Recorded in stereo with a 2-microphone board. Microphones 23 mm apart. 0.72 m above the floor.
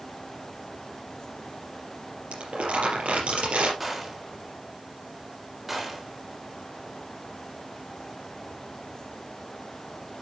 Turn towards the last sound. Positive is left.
turn(degrees=-10)  # may be behind; listen again after turning